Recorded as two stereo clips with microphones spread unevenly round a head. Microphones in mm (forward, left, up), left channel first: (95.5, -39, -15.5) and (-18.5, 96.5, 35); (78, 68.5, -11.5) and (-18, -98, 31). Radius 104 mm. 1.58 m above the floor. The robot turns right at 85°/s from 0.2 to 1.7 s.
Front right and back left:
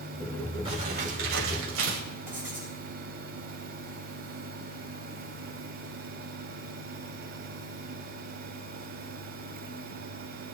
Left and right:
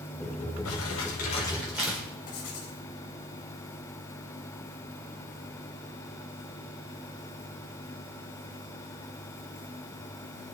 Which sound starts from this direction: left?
Crumpling, at 0.7 s.